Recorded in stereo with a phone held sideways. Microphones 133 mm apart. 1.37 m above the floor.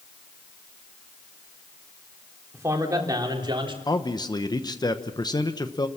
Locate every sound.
2.5 s a man speaking: 20° right (ahead or behind), 3.5 m; by 3.8 s 40° right (ahead or behind), 3.5 m
3.9 s a man speaking: 30° left (ahead or behind), 1.0 m